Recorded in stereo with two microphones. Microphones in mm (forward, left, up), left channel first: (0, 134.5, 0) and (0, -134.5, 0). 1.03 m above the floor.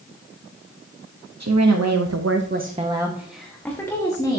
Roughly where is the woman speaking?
Right.